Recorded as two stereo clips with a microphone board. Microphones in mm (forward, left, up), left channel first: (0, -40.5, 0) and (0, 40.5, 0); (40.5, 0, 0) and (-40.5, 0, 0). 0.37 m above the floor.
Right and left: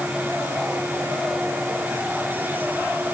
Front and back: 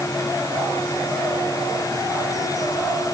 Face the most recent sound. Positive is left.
No sound to turn to.